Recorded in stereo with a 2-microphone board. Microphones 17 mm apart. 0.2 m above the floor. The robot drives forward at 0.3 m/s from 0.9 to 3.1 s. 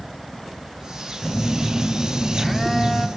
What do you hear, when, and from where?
1.2 s a phone buzzing: 10° left (ahead or behind), 0.7 m